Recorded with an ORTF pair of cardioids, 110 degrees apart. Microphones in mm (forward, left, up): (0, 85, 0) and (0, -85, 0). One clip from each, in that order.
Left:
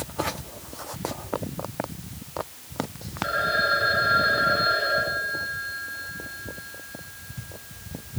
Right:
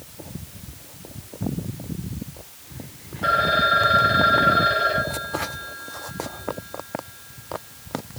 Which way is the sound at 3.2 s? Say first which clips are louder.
Right 4 dB; 45° right.